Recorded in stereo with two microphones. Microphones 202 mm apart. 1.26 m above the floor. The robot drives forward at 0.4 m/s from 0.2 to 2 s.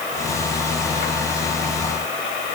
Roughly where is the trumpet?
I don't hear a trumpet.